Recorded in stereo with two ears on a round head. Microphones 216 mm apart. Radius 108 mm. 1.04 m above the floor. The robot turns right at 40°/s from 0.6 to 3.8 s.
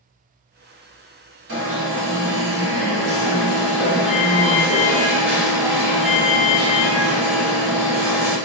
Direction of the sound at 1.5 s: 100° right.